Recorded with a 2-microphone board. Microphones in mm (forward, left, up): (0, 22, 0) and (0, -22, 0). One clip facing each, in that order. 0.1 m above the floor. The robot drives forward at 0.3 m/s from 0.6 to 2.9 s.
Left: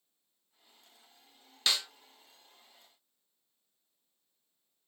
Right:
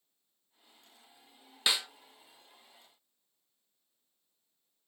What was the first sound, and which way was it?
A snare drum, 15° right (ahead or behind).